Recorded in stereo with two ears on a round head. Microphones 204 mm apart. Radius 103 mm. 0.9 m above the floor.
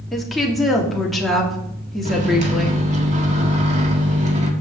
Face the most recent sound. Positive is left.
turn(degrees=-35)  # may be behind; listen again after turning